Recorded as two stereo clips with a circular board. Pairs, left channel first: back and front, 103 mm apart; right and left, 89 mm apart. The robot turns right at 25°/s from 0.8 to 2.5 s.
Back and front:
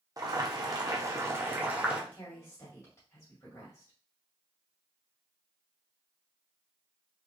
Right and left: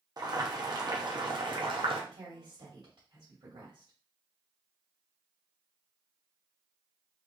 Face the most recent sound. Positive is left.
turn(degrees=115)